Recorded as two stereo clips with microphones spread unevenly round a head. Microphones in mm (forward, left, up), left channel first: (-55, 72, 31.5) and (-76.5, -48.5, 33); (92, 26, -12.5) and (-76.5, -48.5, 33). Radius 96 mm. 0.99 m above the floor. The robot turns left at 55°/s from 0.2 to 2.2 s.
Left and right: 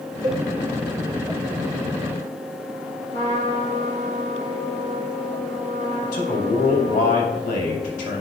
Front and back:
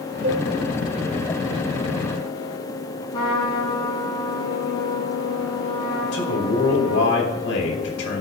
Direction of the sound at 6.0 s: 50° left.